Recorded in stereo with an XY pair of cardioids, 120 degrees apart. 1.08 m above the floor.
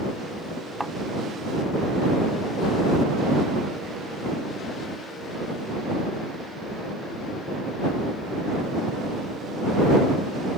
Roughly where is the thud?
Ahead.